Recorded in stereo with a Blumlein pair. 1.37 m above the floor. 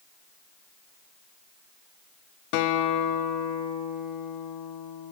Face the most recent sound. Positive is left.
turn(degrees=45)